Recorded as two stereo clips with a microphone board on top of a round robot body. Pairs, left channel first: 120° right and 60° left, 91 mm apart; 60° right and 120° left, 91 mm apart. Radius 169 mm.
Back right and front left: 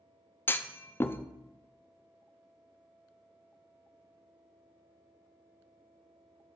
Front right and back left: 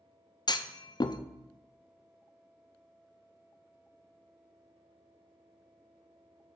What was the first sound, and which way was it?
A clunk, 60° right.